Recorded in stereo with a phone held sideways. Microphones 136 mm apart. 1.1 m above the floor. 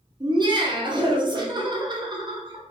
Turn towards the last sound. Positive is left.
turn(degrees=-35)  # may be behind; listen again after turning